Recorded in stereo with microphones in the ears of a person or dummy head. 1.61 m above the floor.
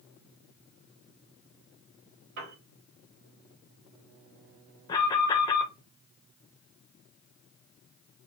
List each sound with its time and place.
2.4 s a piano: 55° right (ahead or behind), 1.7 m
4.9 s an alarm: 20° left (ahead or behind), 0.9 m